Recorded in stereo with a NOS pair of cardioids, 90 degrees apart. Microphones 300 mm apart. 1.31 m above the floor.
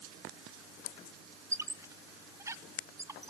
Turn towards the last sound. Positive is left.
turn(degrees=-10)